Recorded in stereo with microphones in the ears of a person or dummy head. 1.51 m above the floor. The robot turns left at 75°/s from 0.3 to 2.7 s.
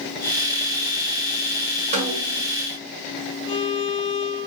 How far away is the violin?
About 1.8 m.